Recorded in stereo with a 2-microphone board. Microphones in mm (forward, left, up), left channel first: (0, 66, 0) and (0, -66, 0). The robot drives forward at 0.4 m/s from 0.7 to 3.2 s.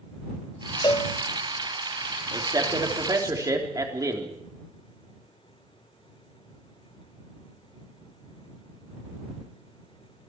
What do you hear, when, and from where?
0.8 s a cowbell: 35° left (ahead or behind), 0.9 m
2.3 s a man speaking: 30° right (ahead or behind), 3 m; by 4.4 s 25° right (ahead or behind), 3.5 m